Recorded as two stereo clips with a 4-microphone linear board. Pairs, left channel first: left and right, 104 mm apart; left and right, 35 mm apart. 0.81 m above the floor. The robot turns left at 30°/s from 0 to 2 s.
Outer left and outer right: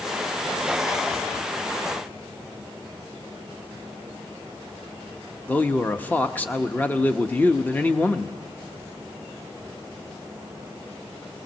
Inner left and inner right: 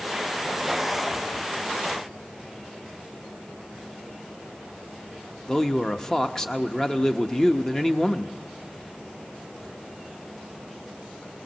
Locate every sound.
5.5 s a man speaking: 15° left (ahead or behind), 0.9 m